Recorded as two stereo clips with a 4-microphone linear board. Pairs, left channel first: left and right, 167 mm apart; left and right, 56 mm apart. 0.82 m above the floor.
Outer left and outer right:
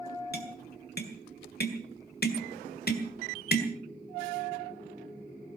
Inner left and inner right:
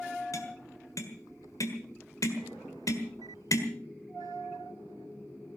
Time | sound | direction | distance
0.3 | tapping | 75° left (ahead or behind) | 1.7 m